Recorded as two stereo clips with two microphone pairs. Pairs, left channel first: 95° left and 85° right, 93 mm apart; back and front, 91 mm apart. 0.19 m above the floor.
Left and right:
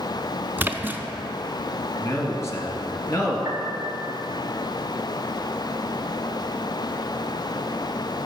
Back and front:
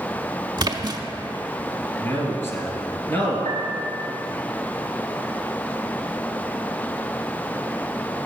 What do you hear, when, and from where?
0.6 s a splash: 25° right, 0.5 m
2.0 s a man speaking: 135° left, 1.6 m
3.5 s a piano: 155° right, 1.6 m